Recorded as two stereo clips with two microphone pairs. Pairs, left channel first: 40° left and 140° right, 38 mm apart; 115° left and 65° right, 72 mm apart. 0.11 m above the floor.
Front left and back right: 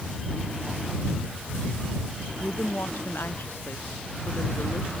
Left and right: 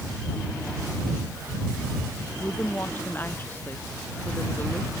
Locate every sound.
2.4 s a woman speaking: 55° left